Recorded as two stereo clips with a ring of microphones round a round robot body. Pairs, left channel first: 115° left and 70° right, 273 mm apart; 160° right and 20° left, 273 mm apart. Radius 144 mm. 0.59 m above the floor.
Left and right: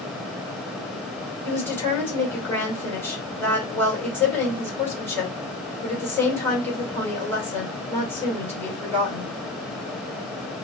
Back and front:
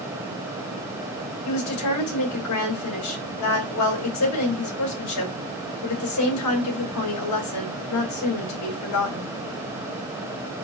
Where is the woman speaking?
165° right, 2.5 m.